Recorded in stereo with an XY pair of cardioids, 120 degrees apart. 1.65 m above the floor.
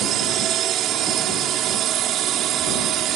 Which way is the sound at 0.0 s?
65° right.